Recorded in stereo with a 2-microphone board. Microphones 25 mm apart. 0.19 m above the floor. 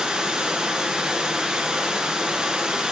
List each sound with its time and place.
0.0 s running water: 45° right (ahead or behind), 1.8 m